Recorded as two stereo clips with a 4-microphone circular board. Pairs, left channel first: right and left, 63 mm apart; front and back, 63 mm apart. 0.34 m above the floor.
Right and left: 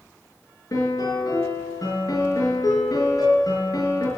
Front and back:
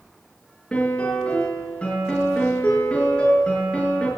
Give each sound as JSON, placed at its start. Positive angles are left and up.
{"t": 0.7, "sound": "a piano", "azimuth_deg": -70, "distance_m": 5.5}